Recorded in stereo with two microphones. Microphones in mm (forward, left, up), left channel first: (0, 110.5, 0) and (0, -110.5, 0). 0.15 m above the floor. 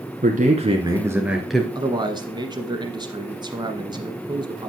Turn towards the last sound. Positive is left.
turn(degrees=-20)  # may be behind; listen again after turning